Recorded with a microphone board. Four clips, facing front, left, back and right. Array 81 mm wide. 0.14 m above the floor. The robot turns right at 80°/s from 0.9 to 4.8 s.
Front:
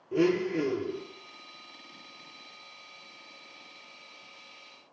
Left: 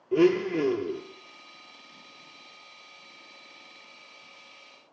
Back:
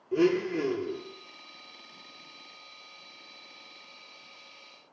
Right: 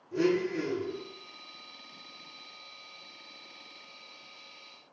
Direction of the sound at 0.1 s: 90° left.